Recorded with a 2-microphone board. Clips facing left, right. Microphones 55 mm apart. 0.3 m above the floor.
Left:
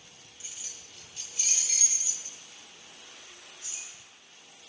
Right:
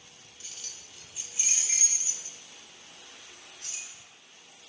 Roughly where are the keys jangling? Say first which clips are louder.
Even; centre.